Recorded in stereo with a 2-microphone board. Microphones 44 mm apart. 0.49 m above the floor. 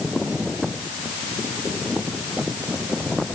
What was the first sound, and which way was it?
Only background noise.